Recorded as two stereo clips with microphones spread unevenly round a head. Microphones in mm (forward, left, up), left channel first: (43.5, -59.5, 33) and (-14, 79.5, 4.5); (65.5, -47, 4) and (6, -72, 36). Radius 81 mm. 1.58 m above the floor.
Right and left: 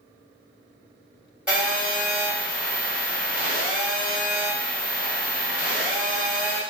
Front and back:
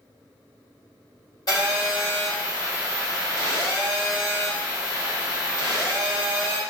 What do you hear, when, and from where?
1.5 s a phone buzzing: 20° left, 1.5 m